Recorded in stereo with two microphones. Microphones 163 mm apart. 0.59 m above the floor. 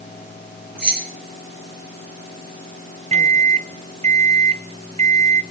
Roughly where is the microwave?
Right.